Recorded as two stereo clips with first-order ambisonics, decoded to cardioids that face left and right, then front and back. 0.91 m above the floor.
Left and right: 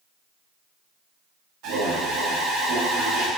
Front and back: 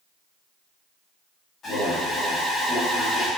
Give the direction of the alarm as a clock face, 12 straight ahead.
2 o'clock.